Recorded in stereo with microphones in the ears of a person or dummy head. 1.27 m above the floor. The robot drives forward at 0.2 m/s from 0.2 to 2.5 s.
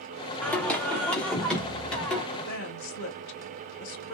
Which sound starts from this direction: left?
A woman speaking, at 2.3 s.